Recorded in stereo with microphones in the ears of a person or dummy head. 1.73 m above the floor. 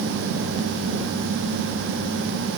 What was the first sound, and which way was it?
Only background noise.